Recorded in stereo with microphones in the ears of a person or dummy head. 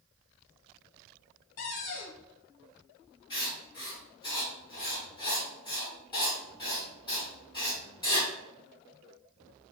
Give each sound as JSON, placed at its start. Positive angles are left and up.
{"t": 1.6, "sound": "a cupboard door", "side_deg": 45, "distance_m": 0.5}
{"t": 3.3, "sound": "writing", "side_deg": 25, "distance_m": 1.9}